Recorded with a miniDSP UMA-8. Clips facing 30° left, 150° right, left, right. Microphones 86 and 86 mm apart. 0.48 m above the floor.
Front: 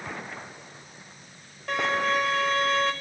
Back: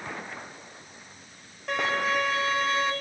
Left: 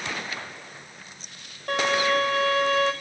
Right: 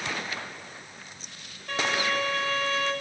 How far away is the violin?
About 1.0 m.